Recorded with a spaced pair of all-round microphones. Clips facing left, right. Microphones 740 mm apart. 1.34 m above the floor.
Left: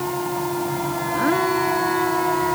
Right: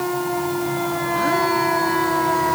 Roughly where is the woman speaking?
No woman speaking in this recording.